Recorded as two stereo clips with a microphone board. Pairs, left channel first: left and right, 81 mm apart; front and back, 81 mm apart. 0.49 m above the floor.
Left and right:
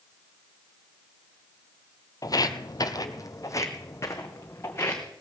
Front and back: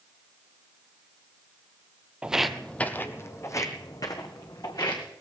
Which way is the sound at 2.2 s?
105° left.